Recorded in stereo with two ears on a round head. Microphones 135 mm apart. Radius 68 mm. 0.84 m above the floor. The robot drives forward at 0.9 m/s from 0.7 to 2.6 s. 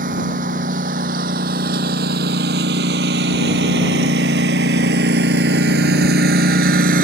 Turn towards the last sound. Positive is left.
turn(degrees=-65)  # may be behind; listen again after turning